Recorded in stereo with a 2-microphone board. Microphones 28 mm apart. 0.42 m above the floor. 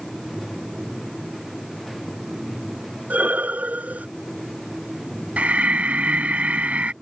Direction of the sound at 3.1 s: 70° right (ahead or behind).